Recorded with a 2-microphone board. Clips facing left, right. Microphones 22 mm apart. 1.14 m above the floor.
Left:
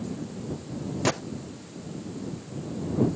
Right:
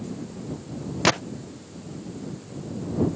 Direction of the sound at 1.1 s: 55° right (ahead or behind).